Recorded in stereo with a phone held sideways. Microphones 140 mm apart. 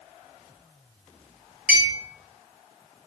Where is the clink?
10° right (ahead or behind), 0.5 m.